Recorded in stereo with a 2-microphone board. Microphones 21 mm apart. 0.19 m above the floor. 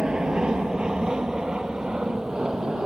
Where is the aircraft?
50° right (ahead or behind); by 2.9 s 45° right (ahead or behind).